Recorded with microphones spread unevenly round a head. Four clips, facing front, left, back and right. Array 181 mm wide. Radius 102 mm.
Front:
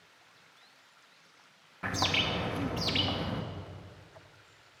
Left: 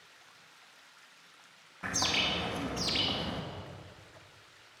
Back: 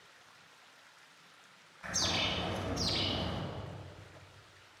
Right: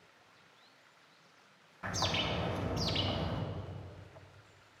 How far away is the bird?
About 2.5 m.